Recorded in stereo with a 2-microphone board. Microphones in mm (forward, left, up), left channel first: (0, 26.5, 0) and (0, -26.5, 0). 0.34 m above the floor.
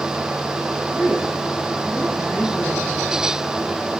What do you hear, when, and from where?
0.9 s a woman speaking: 50° left (ahead or behind), 5.5 m